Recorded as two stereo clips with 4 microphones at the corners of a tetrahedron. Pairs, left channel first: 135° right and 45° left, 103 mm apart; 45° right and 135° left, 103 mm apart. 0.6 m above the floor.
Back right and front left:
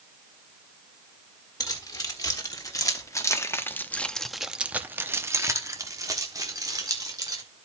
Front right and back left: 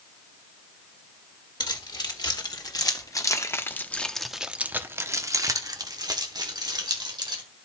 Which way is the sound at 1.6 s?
85° right.